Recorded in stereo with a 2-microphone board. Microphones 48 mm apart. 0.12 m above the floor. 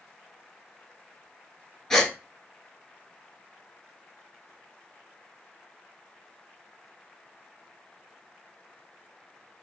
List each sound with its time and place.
1.9 s a gasp: 10° left (ahead or behind), 0.8 m